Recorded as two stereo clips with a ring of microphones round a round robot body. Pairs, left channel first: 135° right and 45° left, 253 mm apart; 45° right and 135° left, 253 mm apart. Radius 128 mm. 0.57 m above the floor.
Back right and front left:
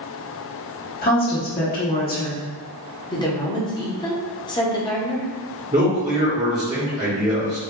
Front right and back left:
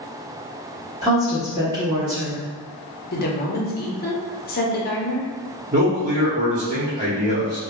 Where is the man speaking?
95° left, 1.2 m.